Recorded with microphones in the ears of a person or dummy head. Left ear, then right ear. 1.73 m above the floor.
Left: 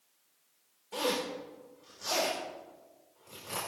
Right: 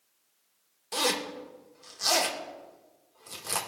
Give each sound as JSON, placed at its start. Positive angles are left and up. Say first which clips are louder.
{"t": 0.9, "sound": "a zipper", "louder": "right 4 dB", "side_deg": -65, "distance_m": 1.8}